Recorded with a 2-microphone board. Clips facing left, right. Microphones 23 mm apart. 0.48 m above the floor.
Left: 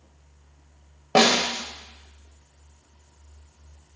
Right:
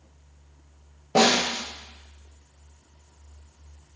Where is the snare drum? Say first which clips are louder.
Left 1 dB; 55° left (ahead or behind), 0.6 m.